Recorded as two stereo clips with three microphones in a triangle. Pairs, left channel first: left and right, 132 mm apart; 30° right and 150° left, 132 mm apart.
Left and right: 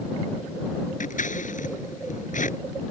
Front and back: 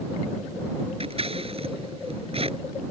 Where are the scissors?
105° left.